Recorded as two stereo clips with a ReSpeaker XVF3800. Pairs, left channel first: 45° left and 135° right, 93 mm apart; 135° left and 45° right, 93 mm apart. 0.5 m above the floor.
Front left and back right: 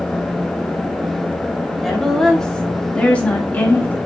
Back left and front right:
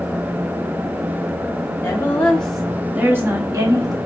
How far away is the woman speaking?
About 0.9 m.